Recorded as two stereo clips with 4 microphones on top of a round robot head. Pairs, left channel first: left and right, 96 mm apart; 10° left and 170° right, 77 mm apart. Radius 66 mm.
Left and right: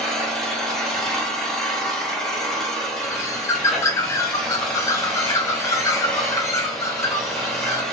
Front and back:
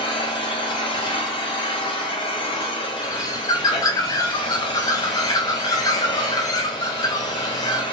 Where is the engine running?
5° left, 1.0 m.